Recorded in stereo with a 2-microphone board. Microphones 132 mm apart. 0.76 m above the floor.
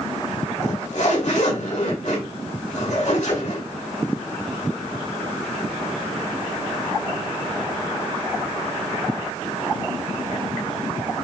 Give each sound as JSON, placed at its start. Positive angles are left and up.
{"t": 0.6, "sound": "a zipper", "side_deg": 75, "distance_m": 4.5}